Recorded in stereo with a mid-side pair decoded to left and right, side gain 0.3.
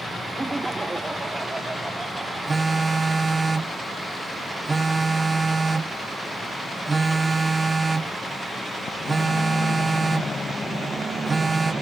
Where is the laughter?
25° right.